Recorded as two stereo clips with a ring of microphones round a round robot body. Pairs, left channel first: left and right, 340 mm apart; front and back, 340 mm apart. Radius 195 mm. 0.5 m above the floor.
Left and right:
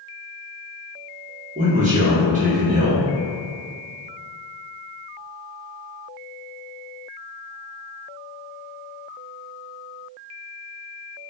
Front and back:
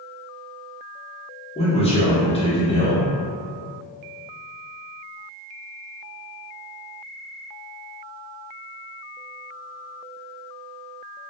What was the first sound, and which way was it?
A man speaking, 50° right.